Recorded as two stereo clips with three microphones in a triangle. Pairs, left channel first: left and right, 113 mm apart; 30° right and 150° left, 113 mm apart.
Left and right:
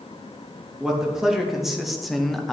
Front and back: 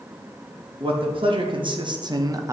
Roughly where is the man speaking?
Behind.